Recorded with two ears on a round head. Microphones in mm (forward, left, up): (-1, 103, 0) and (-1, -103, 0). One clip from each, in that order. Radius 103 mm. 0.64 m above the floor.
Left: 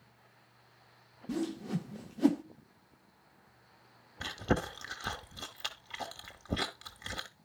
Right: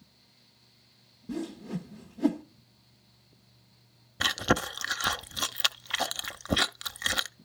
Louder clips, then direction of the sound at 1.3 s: Left 1 dB; 35° left (ahead or behind).